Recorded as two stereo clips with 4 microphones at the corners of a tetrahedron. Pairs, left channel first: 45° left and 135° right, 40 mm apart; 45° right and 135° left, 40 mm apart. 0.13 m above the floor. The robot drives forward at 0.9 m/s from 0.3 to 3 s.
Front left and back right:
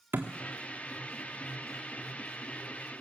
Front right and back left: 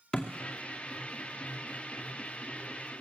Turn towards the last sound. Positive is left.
turn(degrees=-150)